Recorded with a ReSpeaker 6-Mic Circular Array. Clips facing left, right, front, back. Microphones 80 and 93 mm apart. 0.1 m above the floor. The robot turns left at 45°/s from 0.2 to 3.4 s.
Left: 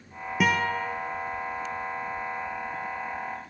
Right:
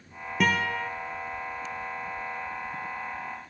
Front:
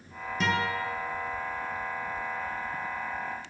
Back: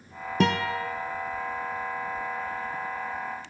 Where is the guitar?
175° left, 0.5 m; by 0.9 s 150° left, 0.5 m.